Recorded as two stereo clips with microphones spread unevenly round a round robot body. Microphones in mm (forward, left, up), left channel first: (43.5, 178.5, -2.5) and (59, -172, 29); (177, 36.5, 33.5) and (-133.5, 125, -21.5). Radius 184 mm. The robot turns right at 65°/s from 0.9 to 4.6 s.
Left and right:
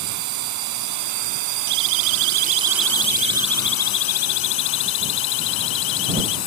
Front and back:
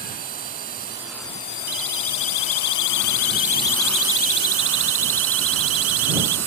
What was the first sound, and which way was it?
A drone, 125° right.